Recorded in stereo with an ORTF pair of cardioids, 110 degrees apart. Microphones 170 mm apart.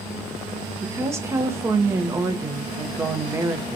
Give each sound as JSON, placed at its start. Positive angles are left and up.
{"t": 0.8, "sound": "a woman speaking", "azimuth_deg": -15, "distance_m": 0.5}